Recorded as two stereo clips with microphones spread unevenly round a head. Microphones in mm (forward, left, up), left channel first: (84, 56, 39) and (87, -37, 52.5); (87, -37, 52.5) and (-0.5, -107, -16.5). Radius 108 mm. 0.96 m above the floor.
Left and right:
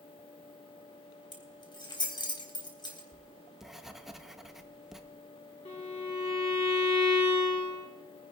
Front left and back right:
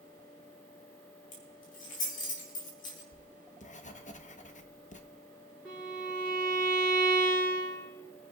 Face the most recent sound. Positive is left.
turn(degrees=130)